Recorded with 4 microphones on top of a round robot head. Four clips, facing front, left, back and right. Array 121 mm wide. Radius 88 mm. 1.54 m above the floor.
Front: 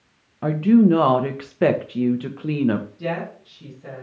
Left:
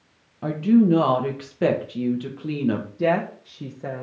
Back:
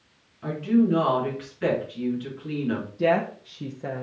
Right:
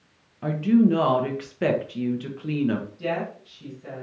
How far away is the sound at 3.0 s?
About 0.9 m.